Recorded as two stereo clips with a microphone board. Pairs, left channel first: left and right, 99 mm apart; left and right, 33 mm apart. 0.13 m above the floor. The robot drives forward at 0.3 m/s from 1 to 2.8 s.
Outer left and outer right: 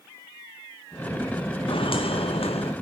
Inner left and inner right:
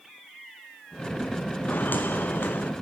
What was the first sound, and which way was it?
Footsteps, 65° left (ahead or behind).